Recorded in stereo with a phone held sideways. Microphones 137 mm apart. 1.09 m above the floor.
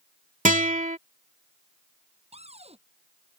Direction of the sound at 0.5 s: 70° right (ahead or behind).